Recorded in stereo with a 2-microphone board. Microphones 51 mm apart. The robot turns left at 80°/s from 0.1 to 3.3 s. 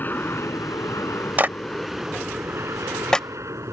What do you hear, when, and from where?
0.0 s an aircraft: 35° left (ahead or behind); by 3.7 s 60° right (ahead or behind)
1.4 s a clap: 35° right (ahead or behind); by 3.3 s 20° left (ahead or behind)